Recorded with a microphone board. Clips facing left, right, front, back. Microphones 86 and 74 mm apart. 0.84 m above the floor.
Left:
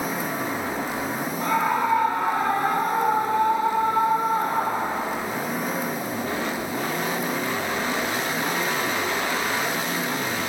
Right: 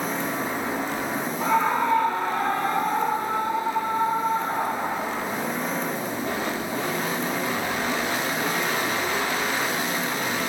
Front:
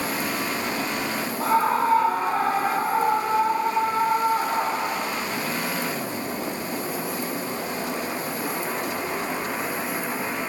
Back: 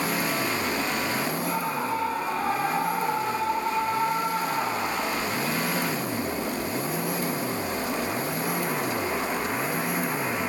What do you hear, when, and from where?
1.4 s a scream: 10° right, 1.6 m; by 5.2 s 60° left, 3 m